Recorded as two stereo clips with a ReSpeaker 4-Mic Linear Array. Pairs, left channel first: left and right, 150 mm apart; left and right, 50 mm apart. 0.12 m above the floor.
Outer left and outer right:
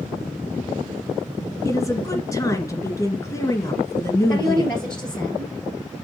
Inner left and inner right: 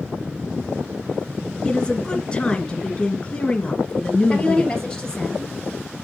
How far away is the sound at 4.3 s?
About 2.5 m.